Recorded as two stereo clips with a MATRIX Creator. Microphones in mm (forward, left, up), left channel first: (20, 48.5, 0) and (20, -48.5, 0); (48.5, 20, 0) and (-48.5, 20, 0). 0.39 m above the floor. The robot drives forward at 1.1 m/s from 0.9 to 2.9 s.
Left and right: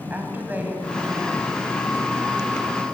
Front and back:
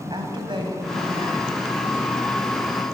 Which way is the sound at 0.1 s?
160° right.